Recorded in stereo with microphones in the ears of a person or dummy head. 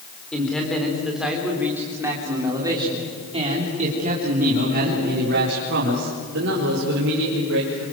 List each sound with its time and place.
0.3 s a man speaking: 5° left (ahead or behind), 4.5 m; by 7.8 s 80° right, 5 m